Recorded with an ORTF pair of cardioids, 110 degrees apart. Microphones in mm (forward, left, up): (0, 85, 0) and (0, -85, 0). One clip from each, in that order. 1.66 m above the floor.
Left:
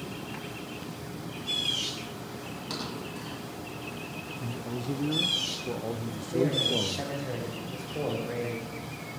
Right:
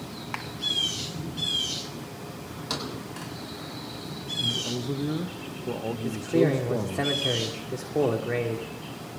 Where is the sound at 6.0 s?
45° right, 1.5 m.